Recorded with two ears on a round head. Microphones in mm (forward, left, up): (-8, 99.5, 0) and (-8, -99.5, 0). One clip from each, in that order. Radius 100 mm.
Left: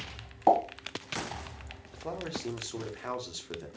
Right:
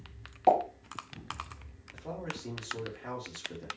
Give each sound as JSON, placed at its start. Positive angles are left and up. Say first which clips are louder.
{"t": 0.5, "sound": "a pop", "louder": "left 1 dB", "side_deg": 70, "distance_m": 1.3}
{"t": 1.9, "sound": "a man speaking", "louder": "left 3 dB", "side_deg": 60, "distance_m": 0.9}